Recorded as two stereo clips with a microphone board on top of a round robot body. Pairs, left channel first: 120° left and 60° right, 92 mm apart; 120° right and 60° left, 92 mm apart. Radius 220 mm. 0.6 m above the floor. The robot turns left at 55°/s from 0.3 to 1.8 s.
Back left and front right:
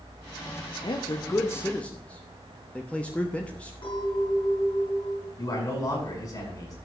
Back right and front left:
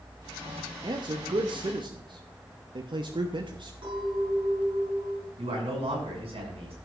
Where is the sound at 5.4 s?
70° left, 6.5 m.